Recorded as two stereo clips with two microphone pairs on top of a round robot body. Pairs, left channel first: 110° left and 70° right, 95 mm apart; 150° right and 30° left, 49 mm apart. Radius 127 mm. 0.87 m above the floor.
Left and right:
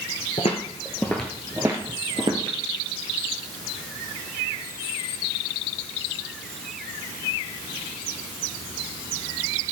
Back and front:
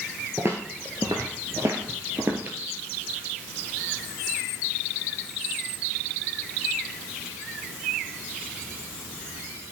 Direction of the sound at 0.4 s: 95° left.